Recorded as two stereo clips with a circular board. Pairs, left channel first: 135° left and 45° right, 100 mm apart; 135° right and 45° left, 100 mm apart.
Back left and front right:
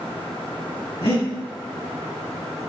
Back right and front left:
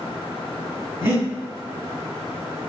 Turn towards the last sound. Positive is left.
turn(degrees=110)